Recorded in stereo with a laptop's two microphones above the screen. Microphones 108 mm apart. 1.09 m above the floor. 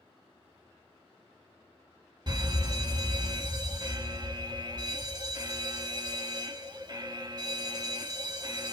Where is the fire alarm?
45° right (ahead or behind), 2 m.